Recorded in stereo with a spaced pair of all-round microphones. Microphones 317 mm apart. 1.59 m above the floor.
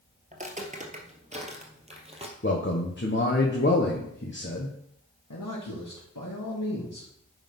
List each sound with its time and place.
0.3 s footsteps: 25° right (ahead or behind), 1.7 m; by 2.3 s 20° right (ahead or behind), 2.5 m
2.4 s a man speaking: 35° left (ahead or behind), 1.3 m
5.3 s a man speaking: 80° left, 2.5 m